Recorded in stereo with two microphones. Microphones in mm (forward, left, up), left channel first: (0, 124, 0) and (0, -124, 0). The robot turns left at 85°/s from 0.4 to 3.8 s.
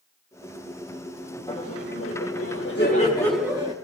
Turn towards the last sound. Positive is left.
turn(degrees=-40)